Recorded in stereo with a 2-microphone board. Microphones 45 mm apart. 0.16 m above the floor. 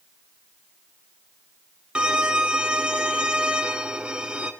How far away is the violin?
About 1.0 m.